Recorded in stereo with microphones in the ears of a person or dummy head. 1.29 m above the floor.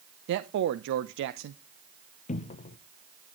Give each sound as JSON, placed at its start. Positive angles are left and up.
{"t": 0.3, "sound": "a man speaking", "side_deg": -65, "distance_m": 0.5}
{"t": 2.3, "sound": "a cupboard door", "side_deg": 30, "distance_m": 0.6}